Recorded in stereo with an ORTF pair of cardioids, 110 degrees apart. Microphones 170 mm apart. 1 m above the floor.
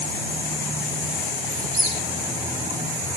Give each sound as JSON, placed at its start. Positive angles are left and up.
{"t": 1.5, "sound": "a squeak", "azimuth_deg": -25, "distance_m": 4.0}